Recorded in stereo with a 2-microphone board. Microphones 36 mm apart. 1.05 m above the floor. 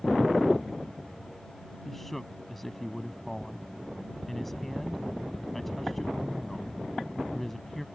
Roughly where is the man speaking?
Centre.